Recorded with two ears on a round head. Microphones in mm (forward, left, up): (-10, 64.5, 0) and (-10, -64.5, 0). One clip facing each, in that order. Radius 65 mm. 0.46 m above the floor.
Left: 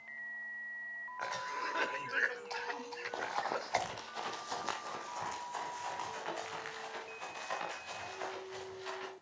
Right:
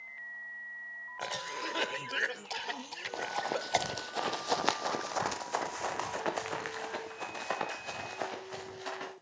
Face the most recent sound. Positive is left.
turn(degrees=-55)  # may be behind; listen again after turning